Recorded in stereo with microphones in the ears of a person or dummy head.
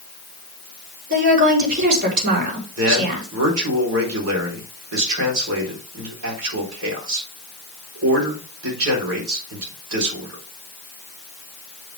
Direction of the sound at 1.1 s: 55° right (ahead or behind).